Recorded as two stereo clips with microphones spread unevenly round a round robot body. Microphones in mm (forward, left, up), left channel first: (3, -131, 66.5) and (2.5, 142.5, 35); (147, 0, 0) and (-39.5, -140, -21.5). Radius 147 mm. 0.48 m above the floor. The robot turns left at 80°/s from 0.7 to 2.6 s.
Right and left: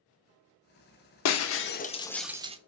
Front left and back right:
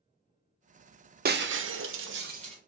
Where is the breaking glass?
105° right, 0.8 m; by 2.6 s 150° left, 0.8 m.